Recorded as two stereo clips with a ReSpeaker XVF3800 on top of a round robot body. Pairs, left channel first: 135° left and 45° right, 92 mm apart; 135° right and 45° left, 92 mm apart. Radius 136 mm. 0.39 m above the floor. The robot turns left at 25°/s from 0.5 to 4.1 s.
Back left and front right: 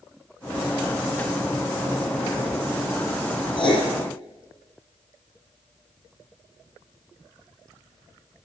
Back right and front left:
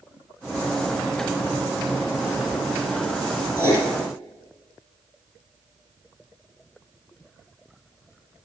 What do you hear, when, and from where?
3.6 s writing: 165° left, 5 m; by 3.9 s 155° left, 5 m